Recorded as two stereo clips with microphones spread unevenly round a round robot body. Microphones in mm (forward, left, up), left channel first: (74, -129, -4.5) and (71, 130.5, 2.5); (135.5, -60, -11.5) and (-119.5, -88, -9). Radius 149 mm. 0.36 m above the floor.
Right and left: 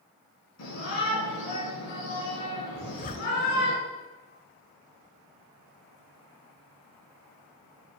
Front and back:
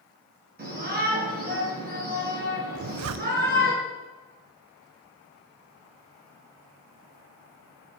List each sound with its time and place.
0.6 s a shout: 120° right, 6 m
2.8 s a zipper: 155° right, 0.5 m